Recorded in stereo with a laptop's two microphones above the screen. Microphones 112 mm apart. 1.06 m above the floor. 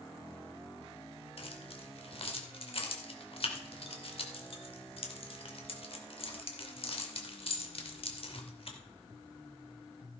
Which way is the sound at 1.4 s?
55° left (ahead or behind).